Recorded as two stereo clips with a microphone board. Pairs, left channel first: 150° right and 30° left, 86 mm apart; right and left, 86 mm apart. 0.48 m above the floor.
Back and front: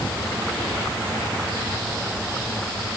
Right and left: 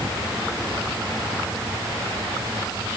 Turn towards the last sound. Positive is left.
No sound to turn to.